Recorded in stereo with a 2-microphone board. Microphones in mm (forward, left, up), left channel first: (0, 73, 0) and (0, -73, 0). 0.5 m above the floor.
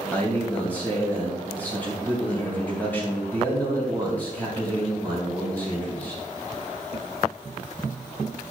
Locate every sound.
0.1 s a man speaking: 10° left (ahead or behind), 3 m